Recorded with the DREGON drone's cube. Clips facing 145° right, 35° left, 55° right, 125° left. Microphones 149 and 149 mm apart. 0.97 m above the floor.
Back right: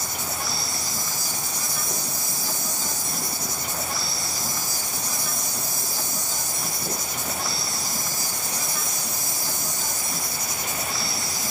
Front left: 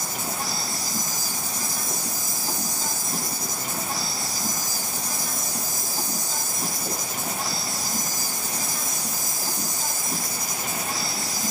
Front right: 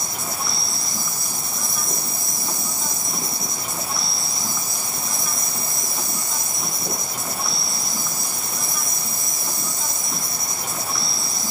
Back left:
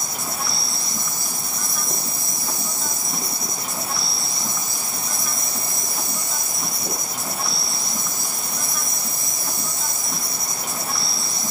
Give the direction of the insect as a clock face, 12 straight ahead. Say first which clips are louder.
Front left 1 dB, even; 11 o'clock.